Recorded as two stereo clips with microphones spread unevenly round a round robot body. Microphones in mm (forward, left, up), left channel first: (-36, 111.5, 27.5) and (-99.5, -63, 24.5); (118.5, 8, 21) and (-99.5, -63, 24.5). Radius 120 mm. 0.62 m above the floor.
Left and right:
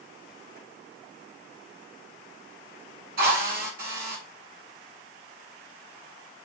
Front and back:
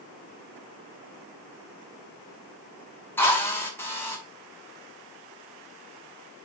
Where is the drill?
60° right, 2 m.